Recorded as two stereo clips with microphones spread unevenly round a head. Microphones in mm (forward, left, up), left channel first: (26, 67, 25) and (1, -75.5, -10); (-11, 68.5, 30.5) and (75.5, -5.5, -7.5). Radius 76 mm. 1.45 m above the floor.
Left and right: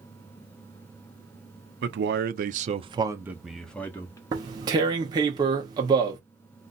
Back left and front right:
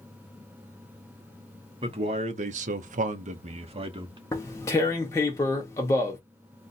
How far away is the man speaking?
About 0.8 m.